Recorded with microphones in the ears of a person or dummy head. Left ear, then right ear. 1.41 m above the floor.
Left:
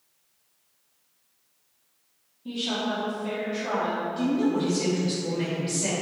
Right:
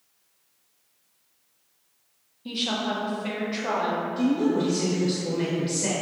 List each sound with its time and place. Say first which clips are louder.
2.5 s a woman speaking: right 1 dB; 30° right (ahead or behind), 1.0 m
4.2 s a woman speaking: right 2 dB; 5° right (ahead or behind), 1.1 m